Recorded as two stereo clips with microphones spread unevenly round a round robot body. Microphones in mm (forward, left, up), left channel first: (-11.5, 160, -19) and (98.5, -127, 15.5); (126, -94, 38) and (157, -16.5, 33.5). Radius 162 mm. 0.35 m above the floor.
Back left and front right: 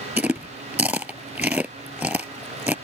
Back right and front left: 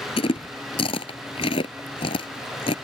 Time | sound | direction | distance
0.2 | chewing | 155° right | ?